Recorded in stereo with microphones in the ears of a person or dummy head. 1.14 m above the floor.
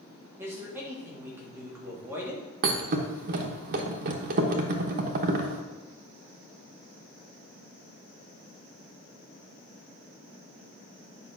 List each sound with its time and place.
0.4 s a man speaking: 15° right (ahead or behind), 2.5 m
2.6 s a thud: 50° right (ahead or behind), 1.1 m